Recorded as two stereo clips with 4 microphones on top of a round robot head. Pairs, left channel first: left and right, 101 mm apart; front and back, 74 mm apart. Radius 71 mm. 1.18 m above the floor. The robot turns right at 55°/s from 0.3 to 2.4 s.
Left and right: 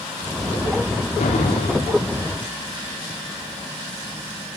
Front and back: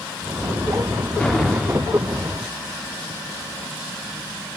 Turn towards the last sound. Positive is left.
turn(degrees=145)